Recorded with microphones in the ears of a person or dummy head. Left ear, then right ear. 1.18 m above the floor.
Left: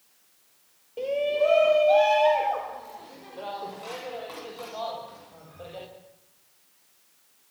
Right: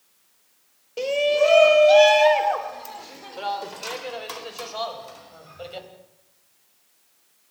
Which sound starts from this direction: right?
A shout, at 1.0 s.